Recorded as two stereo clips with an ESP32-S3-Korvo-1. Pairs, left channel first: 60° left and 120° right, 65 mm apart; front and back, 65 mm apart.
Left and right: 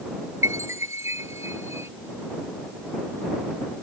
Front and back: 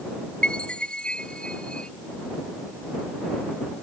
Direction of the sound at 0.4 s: 75° right.